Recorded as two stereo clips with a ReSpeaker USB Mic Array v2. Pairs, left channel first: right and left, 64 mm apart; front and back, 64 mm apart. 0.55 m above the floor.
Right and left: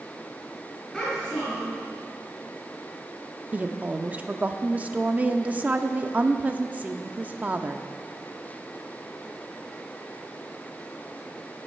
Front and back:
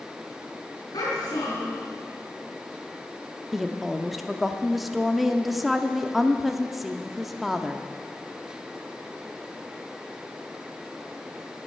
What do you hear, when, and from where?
0.9 s a child speaking: 5° right, 4 m
3.5 s a woman speaking: 90° left, 0.6 m